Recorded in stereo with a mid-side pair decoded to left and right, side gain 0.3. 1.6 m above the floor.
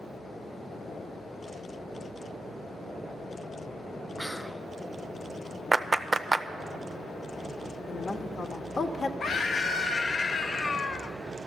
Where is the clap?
35° right, 0.6 m.